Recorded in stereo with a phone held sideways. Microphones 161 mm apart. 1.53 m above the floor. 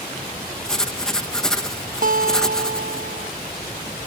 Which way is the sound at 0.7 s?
5° left (ahead or behind).